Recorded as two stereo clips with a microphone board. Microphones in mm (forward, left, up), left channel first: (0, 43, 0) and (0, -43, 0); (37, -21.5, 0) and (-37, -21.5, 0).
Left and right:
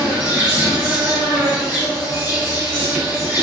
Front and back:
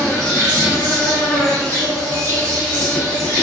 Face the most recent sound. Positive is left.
turn(degrees=-45)